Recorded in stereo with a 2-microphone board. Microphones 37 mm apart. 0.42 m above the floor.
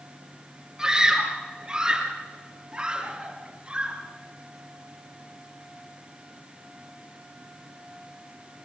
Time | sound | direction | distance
0.8 | a scream | 15° right (ahead or behind) | 6 m